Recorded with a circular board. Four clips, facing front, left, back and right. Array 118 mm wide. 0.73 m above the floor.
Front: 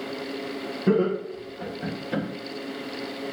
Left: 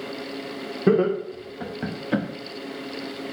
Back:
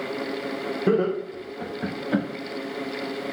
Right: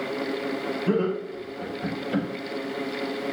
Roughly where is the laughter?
Left.